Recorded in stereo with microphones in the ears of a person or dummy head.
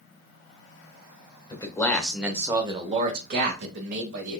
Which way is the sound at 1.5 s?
20° left (ahead or behind).